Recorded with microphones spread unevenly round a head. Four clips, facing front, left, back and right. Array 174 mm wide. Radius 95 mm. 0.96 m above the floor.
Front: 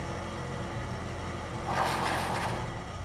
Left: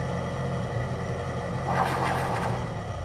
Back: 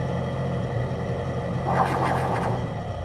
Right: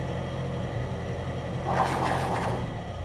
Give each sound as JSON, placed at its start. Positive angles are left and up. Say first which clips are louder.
{"t": 0.0, "sound": "an engine running", "louder": "left 2 dB, back 9 dB", "azimuth_deg": -175, "distance_m": 1.8}
{"t": 1.6, "sound": "writing", "louder": "right 1 dB, back 7 dB", "azimuth_deg": -165, "distance_m": 3.0}